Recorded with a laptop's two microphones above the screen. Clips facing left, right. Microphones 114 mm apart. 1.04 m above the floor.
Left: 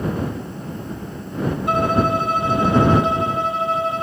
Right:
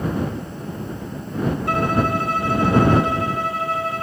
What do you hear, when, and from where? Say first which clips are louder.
1.7 s a violin: left 3 dB; 20° left (ahead or behind)